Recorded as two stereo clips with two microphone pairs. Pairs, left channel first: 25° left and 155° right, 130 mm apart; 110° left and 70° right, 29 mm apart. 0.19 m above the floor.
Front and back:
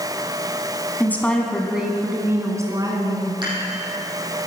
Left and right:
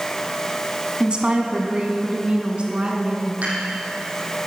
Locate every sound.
1.0 s a woman speaking: 40° right, 2.0 m; by 3.3 s 110° right, 2.5 m
3.4 s dishes clattering: 100° right, 5 m